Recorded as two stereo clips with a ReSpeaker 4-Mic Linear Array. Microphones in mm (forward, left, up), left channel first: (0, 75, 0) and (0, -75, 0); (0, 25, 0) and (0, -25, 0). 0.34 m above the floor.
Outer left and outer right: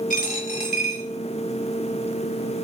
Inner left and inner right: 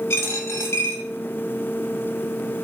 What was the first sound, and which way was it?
A dropped coin, 60° left (ahead or behind).